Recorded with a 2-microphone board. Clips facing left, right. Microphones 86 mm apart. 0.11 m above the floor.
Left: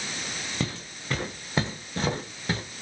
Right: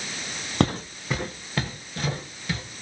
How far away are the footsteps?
About 0.8 m.